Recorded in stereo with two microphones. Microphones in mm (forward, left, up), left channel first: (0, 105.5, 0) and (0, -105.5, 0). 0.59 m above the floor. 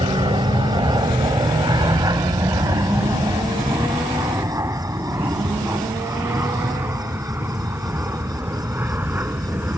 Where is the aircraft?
25° right (ahead or behind); by 9.8 s 10° right (ahead or behind).